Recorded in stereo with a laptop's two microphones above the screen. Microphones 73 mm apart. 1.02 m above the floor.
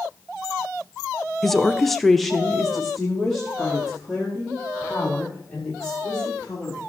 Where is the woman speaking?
Centre (ahead or behind), 0.6 m.